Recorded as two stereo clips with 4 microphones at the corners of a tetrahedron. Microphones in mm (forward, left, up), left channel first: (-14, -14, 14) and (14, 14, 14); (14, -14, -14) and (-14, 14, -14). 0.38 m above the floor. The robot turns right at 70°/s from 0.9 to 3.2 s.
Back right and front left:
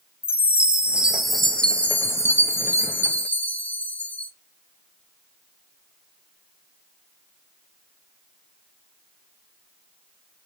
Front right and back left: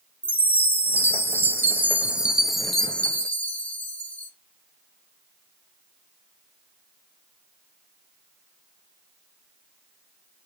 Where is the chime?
105° left, 0.5 m; by 4.3 s 95° right, 0.5 m.